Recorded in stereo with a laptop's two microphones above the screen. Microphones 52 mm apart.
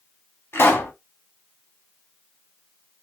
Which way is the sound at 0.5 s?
45° left (ahead or behind).